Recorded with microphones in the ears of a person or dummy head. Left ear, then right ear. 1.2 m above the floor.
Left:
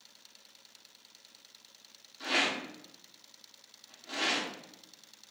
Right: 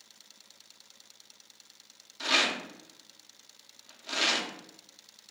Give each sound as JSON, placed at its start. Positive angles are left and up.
{"t": 2.2, "sound": "a rattle", "side_deg": -30, "distance_m": 0.6}